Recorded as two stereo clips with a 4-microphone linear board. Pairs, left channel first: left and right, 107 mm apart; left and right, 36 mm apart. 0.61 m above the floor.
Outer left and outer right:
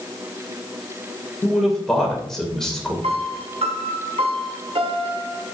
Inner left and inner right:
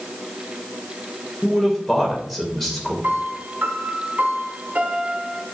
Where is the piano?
70° right (ahead or behind), 1.2 m.